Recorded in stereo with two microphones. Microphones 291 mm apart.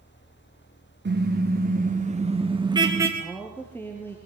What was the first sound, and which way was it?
A car horn, 35° right (ahead or behind).